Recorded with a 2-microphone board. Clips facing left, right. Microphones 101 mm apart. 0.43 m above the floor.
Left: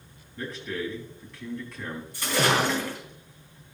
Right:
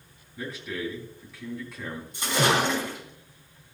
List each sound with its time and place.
0.4 s a man speaking: 5° right (ahead or behind), 3.5 m
2.1 s a splash: 20° right (ahead or behind), 4 m